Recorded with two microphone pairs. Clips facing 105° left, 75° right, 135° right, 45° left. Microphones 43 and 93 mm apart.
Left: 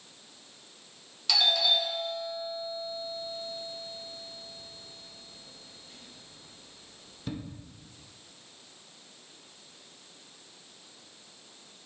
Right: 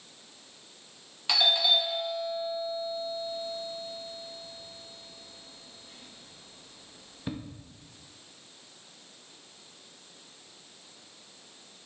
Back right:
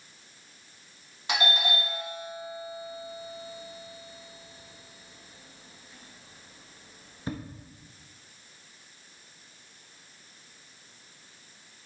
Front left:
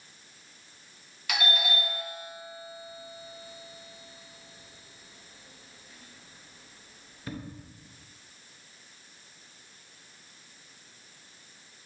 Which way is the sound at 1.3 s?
110° right.